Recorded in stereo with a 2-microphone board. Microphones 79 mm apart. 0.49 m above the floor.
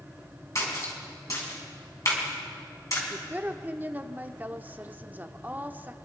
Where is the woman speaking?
25° right (ahead or behind), 0.8 m.